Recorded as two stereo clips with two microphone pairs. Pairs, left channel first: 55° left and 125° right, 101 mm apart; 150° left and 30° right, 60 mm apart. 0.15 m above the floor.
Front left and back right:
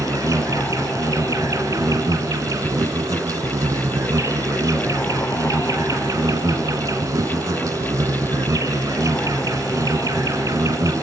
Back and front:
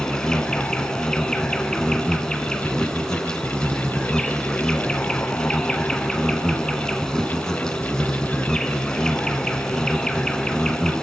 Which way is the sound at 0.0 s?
145° right.